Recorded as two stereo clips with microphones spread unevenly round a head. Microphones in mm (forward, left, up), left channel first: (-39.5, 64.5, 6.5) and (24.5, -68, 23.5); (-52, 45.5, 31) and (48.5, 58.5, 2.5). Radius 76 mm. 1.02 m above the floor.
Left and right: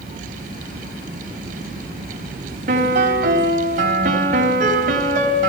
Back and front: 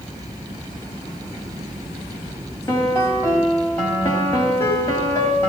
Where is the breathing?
No breathing in this recording.